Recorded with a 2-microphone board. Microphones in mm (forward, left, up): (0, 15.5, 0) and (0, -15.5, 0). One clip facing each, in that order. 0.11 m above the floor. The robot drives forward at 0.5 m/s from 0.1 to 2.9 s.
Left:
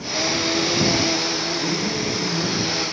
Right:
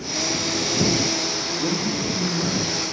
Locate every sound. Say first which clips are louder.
1.6 s a man speaking: left 1 dB; 10° right (ahead or behind), 2.5 m